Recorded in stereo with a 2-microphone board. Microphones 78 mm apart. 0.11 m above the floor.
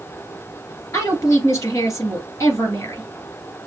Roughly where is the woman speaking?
Left.